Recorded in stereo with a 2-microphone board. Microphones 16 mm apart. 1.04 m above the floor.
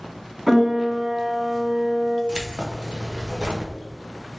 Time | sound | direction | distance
0.5 | a piano | 5° right (ahead or behind) | 1.8 m
2.3 | keys jangling | 70° right (ahead or behind) | 0.6 m